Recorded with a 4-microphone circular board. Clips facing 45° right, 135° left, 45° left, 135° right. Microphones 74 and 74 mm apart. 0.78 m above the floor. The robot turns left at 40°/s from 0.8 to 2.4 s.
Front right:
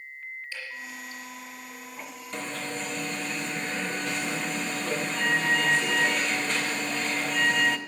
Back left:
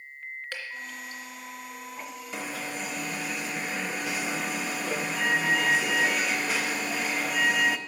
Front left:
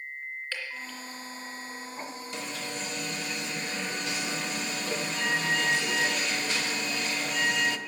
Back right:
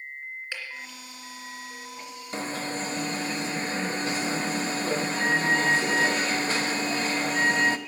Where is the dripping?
150° left, 2.5 m; by 1.2 s 135° left, 2.5 m.